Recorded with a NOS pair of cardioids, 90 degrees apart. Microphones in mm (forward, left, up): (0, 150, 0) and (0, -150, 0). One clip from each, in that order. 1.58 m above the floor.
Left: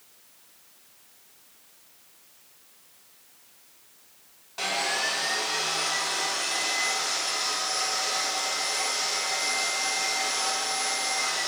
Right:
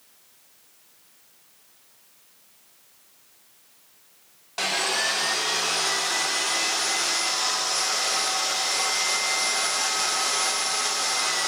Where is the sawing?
40° right, 1.2 m.